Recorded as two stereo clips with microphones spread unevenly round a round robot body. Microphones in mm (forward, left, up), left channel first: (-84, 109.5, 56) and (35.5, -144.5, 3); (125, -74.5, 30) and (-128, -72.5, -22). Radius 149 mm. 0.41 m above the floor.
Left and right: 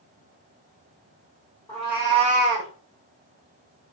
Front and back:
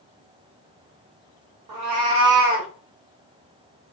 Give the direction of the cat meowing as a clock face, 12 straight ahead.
6 o'clock.